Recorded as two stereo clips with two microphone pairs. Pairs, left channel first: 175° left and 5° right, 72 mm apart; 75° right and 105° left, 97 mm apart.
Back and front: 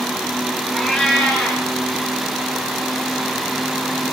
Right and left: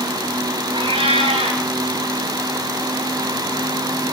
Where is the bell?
No bell in this recording.